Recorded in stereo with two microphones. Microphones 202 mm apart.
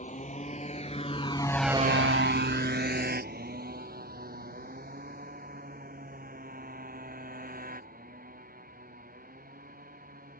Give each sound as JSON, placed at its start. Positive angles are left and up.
{"t": 0.0, "sound": "a motorcycle", "side_deg": 35}